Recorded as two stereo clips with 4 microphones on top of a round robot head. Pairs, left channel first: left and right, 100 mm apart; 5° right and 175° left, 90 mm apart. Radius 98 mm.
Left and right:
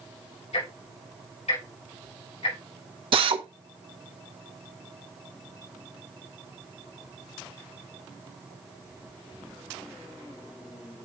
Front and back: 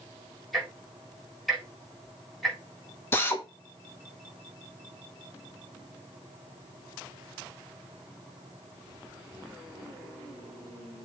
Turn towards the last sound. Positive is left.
turn(degrees=-70)